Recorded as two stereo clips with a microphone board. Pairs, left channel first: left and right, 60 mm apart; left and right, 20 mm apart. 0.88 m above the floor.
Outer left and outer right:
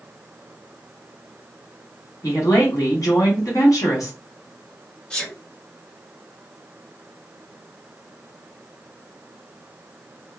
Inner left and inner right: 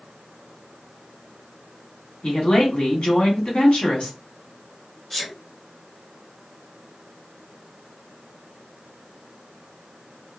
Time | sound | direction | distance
2.2 | a woman speaking | 65° left (ahead or behind) | 1.4 m
5.1 | a sneeze | 15° left (ahead or behind) | 1.4 m